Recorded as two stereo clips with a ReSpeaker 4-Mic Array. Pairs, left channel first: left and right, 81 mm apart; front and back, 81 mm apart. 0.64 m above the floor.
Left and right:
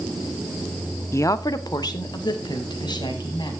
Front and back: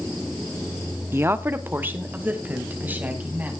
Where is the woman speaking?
130° left, 0.7 m; by 3.5 s 110° left, 4 m.